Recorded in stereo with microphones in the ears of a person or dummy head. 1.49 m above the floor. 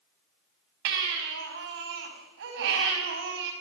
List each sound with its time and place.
0.8 s a baby crying: 60° right (ahead or behind), 4 m